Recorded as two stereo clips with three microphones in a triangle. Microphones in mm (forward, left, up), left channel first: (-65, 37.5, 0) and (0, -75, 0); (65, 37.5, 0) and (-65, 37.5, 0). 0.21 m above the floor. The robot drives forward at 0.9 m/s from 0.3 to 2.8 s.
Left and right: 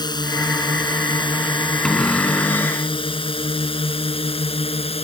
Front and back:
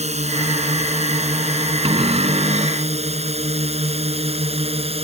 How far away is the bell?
I don't hear a bell.